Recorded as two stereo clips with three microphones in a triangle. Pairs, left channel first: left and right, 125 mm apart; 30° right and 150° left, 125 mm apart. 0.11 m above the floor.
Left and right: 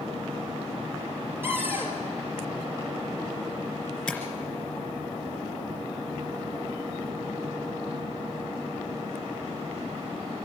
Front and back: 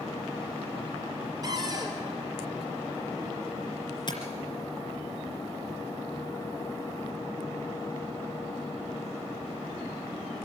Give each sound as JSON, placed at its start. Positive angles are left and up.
{"t": 1.4, "sound": "a cupboard door", "azimuth_deg": -160, "distance_m": 3.0}
{"t": 4.1, "sound": "tapping", "azimuth_deg": 5, "distance_m": 2.5}